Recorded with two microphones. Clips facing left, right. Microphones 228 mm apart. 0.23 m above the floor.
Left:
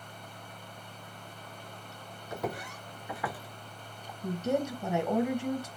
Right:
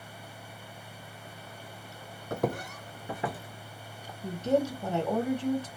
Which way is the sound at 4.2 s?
10° left (ahead or behind).